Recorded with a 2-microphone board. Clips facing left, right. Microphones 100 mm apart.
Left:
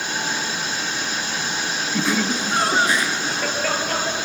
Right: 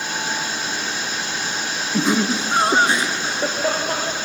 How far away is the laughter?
About 1.1 m.